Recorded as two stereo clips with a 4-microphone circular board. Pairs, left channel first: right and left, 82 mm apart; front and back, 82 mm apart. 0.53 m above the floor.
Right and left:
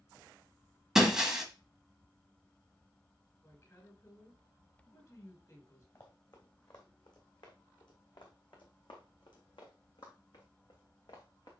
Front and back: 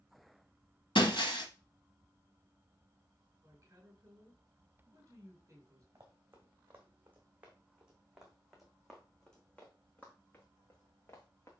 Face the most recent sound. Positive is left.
turn(degrees=-55)